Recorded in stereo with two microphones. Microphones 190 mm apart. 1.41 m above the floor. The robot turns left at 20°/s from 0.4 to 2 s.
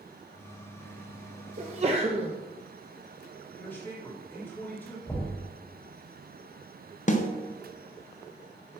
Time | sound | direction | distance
1.6 | a sneeze | 40° right (ahead or behind) | 0.7 m
3.5 | a man speaking | 10° left (ahead or behind) | 3.5 m
5.1 | knocking | 15° left (ahead or behind) | 3.5 m
7.1 | a snare drum | 45° left (ahead or behind) | 0.7 m